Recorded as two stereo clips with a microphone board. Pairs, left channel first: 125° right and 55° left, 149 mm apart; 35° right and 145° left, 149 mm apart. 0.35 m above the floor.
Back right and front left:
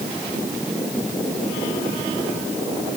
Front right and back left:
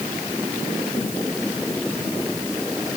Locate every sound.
Only background noise.